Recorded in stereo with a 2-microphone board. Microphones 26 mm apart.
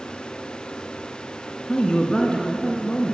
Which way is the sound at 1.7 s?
25° left (ahead or behind).